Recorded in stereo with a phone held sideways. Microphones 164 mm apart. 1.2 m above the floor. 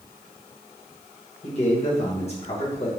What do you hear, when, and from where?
1.4 s a man speaking: 40° left (ahead or behind), 1.0 m